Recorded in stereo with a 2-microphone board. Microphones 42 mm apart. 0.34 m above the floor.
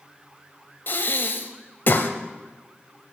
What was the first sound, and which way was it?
Breathing, 50° left (ahead or behind).